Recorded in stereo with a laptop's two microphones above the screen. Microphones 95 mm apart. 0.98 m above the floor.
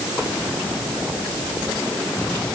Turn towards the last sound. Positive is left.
No sound to turn to.